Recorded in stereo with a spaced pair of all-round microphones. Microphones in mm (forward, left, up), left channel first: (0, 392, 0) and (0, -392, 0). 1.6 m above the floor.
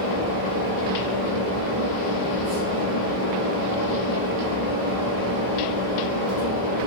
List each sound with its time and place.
0.0 s a fan: 30° left (ahead or behind), 1.1 m